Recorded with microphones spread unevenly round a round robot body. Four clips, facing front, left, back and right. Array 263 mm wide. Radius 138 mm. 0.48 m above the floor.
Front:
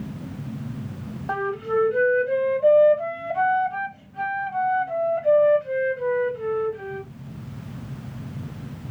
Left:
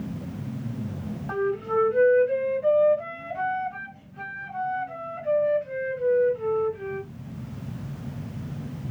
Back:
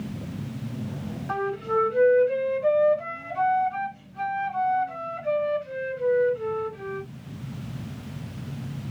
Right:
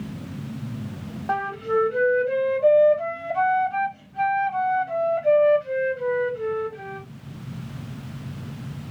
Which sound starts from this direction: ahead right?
A flute, at 1.3 s.